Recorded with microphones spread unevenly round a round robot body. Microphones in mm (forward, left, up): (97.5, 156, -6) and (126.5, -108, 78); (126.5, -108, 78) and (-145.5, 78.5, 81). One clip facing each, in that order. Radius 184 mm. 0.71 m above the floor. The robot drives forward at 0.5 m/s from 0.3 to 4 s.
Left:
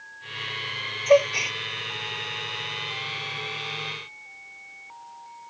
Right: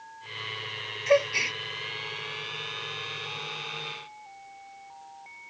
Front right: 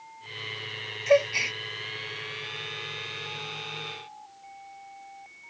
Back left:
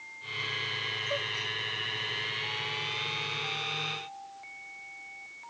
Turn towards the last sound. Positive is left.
turn(degrees=-25)